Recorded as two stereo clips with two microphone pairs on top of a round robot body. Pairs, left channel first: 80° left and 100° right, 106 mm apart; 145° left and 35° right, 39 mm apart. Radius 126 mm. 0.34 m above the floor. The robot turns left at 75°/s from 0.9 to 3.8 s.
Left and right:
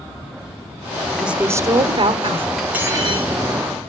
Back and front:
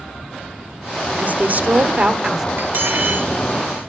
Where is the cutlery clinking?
10° right, 5.5 m; by 3.3 s 65° right, 5.5 m.